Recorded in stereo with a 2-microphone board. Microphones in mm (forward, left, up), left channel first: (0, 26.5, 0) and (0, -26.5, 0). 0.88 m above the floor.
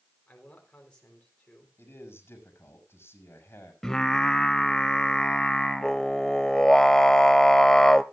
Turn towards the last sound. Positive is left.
turn(degrees=10)  # may be behind; listen again after turning